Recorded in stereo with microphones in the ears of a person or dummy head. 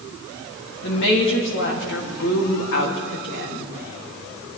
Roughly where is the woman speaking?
Left.